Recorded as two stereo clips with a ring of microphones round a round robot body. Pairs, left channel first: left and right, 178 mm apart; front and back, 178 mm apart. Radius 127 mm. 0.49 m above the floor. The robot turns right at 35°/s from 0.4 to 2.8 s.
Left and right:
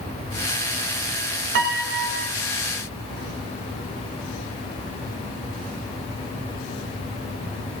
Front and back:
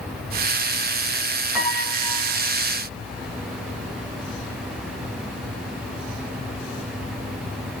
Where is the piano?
95° right, 1.8 m; by 2.3 s 70° right, 1.8 m.